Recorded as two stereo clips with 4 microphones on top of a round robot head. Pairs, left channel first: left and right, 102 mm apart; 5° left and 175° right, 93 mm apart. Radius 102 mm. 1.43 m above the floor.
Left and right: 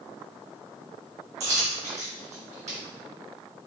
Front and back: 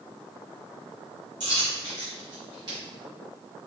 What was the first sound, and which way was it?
A dropped coin, 115° right.